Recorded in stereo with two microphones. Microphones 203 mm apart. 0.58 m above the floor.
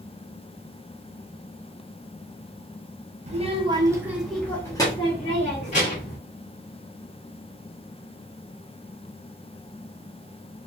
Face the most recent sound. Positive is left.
turn(degrees=40)  # may be behind; listen again after turning